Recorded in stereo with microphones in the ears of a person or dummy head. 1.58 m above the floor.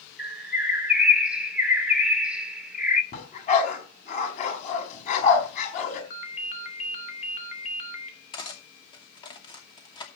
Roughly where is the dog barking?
Left.